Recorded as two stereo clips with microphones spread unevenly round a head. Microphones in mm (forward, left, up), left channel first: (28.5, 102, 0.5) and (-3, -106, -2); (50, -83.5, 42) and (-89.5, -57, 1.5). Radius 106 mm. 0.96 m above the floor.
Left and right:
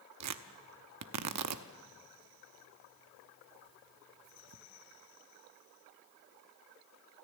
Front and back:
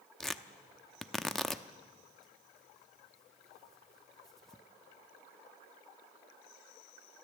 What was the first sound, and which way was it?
Tearing paper, 95° right.